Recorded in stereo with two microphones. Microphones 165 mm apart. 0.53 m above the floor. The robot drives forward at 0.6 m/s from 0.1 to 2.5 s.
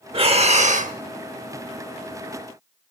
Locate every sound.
0.1 s breathing: 35° right (ahead or behind), 1.0 m; by 1.0 s 50° right (ahead or behind), 0.7 m